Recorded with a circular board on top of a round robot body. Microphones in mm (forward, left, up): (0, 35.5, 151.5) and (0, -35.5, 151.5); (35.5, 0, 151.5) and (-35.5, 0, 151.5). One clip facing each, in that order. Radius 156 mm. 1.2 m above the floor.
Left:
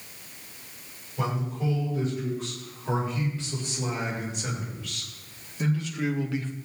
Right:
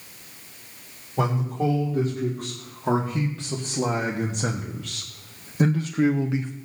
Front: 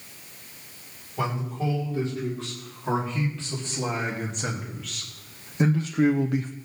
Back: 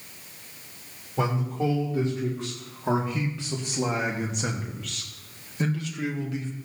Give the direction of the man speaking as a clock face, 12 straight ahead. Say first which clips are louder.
Right 5 dB, back 2 dB; 4 o'clock.